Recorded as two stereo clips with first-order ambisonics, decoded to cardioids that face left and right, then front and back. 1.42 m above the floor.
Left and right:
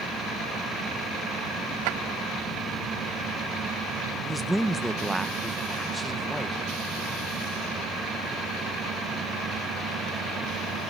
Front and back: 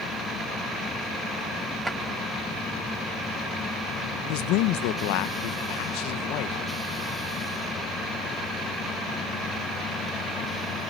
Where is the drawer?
90° right, 4.5 m.